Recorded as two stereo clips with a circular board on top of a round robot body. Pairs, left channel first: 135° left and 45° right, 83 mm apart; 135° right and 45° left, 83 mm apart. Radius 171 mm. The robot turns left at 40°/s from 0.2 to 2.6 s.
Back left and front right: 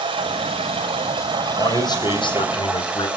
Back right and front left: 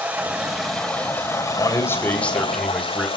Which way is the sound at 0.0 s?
30° right.